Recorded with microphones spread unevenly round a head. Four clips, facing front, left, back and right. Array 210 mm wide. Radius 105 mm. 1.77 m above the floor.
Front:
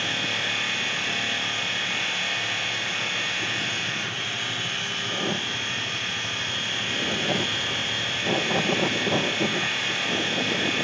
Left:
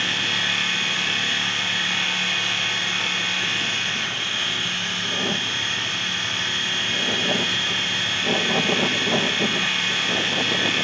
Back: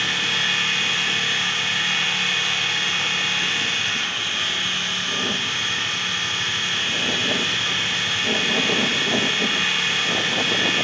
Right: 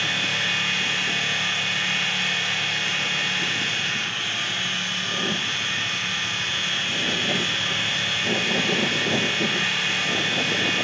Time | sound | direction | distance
0.0 | a machine running | 160° right | 1.8 m